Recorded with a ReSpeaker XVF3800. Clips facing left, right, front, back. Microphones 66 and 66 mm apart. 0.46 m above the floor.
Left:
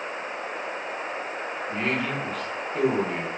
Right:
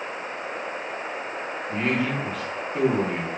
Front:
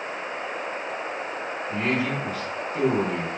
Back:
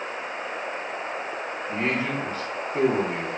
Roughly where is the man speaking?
Behind.